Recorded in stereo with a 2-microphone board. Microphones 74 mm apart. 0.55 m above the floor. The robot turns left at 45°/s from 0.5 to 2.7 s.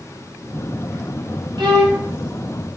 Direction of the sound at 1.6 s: 80° right.